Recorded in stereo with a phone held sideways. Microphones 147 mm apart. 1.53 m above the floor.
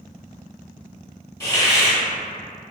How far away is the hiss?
About 1.6 m.